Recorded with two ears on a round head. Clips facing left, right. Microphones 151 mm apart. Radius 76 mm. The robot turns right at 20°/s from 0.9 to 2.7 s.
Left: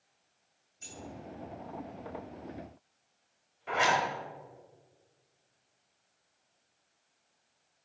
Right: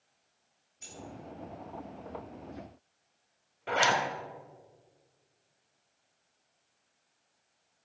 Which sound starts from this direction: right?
A zipper, at 3.7 s.